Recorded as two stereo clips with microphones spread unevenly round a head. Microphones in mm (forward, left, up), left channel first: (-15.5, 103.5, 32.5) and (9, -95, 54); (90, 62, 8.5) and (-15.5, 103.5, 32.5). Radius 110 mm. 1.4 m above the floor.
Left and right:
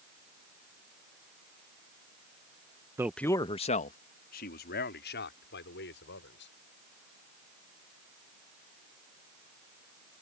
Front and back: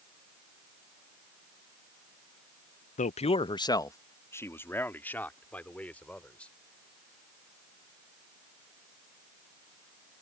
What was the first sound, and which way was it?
A man speaking, 10° right.